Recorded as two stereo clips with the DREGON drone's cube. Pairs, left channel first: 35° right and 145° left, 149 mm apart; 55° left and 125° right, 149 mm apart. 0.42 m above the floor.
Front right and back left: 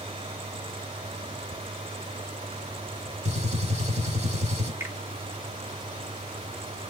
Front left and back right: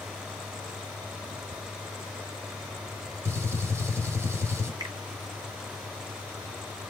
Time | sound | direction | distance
3.2 | a gunshot | 170° left | 1.0 m
4.8 | a finger snap | 155° right | 0.8 m